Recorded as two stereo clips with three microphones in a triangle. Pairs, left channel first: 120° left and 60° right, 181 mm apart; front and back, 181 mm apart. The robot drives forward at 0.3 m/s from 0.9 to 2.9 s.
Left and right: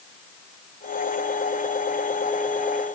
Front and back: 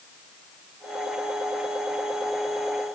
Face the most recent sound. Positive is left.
No sound to turn to.